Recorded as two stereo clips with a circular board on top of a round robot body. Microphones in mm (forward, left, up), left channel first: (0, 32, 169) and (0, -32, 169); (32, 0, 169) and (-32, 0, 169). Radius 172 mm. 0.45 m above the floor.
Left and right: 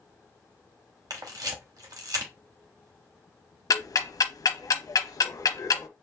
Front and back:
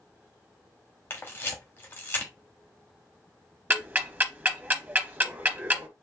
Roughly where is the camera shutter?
Ahead right.